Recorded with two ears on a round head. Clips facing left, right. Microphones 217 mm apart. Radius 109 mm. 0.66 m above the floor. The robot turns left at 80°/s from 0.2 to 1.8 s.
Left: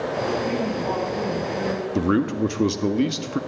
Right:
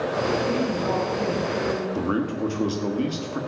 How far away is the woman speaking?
About 5 m.